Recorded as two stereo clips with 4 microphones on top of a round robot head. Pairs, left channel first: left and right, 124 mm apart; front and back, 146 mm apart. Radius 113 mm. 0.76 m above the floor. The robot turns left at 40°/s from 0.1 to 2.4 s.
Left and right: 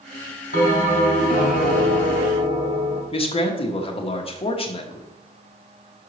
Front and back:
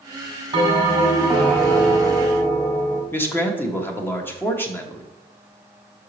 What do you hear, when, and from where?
0.5 s a bell: 130° left, 1.7 m; by 3.0 s 55° left, 1.7 m
3.1 s a man speaking: 75° left, 1.3 m